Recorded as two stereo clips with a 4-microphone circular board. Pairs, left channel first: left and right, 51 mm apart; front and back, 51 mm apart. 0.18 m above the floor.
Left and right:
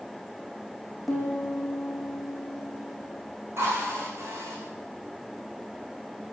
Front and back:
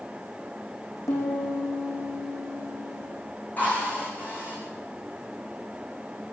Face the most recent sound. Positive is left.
turn(degrees=-60)